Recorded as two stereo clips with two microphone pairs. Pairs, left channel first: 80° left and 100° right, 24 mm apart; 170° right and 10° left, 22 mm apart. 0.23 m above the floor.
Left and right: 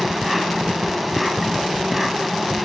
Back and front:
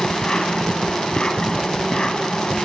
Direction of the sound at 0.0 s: 175° left.